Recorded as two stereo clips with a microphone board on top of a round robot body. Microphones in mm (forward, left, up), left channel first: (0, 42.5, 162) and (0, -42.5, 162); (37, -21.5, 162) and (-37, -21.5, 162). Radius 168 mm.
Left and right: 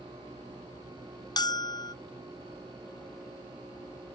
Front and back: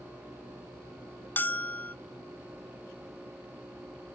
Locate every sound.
1.4 s a bell: 60° left